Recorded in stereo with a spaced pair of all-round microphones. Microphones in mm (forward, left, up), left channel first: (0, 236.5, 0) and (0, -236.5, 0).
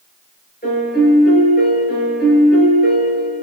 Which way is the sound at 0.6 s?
20° left (ahead or behind).